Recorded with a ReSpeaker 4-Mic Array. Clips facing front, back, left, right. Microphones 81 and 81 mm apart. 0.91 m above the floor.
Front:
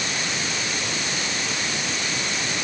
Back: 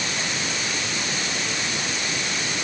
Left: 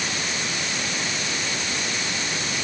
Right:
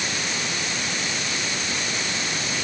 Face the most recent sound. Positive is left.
No sound to turn to.